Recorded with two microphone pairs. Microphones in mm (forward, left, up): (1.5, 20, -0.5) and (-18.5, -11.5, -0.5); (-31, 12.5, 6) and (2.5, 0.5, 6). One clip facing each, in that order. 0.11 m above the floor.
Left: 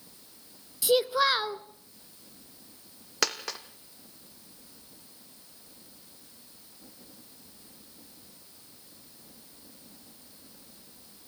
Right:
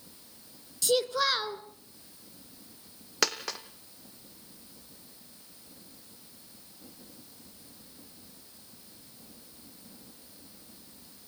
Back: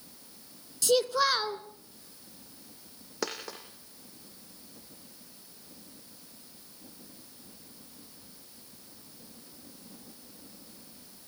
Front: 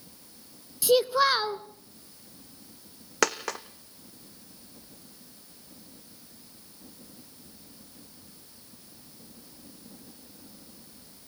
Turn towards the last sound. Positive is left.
turn(degrees=-35)